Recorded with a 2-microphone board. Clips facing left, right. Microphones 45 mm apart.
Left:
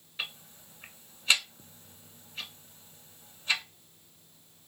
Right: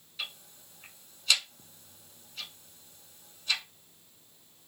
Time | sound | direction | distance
0.2 | ticking | 30° left (ahead or behind) | 0.6 m